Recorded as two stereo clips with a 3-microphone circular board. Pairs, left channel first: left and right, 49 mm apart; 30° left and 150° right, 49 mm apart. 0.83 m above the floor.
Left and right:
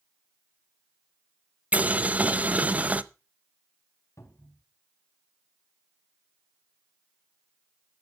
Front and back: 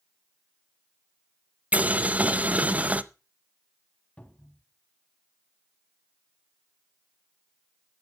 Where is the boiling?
120° right, 0.6 m.